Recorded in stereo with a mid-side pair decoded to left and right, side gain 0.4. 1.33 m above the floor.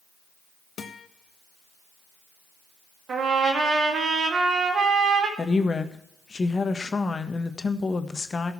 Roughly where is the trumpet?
Ahead right.